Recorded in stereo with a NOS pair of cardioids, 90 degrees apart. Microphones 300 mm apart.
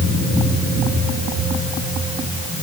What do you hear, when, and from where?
Only background noise.